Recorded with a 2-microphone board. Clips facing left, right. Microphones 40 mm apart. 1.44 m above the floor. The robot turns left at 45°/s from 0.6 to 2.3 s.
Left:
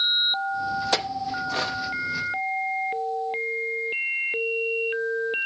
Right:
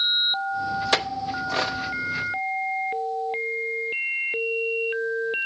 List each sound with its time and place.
0.9 s a clink: 35° right (ahead or behind), 0.8 m; by 1.8 s 15° right (ahead or behind), 0.8 m